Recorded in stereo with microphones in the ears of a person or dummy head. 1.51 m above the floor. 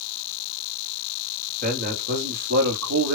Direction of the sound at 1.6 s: 40° right (ahead or behind).